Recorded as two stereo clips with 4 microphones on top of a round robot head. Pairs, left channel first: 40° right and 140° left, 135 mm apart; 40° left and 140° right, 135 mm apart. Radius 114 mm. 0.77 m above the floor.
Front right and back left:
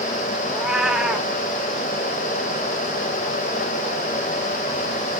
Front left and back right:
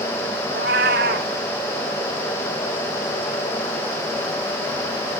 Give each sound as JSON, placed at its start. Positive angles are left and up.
{"t": 0.5, "sound": "a cat meowing", "azimuth_deg": -135, "distance_m": 0.5}